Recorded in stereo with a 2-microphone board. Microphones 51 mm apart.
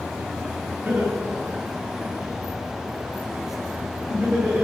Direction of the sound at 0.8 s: 40° right (ahead or behind).